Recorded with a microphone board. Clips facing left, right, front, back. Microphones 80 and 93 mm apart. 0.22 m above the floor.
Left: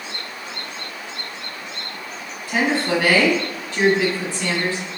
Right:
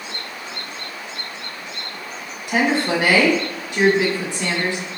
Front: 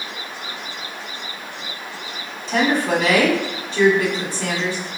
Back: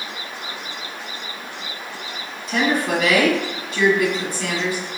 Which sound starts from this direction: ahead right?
A woman speaking, at 2.5 s.